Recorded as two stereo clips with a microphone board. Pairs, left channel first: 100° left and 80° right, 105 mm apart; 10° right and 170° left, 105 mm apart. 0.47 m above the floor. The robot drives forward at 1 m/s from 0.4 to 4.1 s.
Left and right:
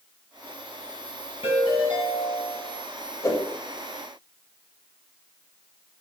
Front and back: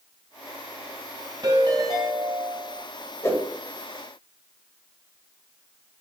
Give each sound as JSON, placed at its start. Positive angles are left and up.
{"t": 1.4, "sound": "a ringtone", "azimuth_deg": 120, "distance_m": 2.5}
{"t": 3.2, "sound": "a whoosh", "azimuth_deg": 45, "distance_m": 2.0}